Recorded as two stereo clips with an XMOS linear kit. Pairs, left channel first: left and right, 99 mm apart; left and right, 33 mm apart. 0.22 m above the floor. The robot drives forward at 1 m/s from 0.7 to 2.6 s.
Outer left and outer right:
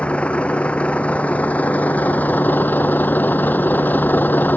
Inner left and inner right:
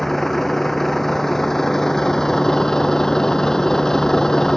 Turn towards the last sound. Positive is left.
turn(degrees=20)  # may be behind; listen again after turning